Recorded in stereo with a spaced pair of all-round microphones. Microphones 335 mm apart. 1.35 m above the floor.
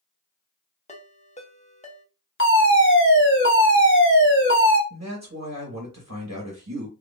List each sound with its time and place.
0.9 s a ringtone: 20° left (ahead or behind), 0.8 m
2.4 s a fire alarm: 35° left (ahead or behind), 1.3 m
4.9 s a man speaking: 55° right (ahead or behind), 1.5 m